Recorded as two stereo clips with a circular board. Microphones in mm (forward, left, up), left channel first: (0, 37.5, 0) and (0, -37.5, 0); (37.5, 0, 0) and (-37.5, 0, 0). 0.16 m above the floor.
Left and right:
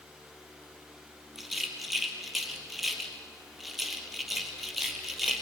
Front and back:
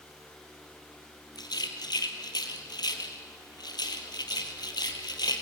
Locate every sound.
1.4 s a rattle: straight ahead, 2.5 m